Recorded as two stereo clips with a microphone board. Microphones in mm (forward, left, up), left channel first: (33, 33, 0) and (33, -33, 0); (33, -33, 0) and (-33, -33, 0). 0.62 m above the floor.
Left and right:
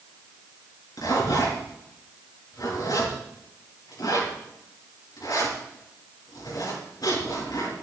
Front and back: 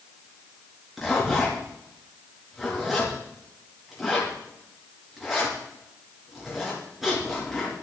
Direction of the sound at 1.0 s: 95° left.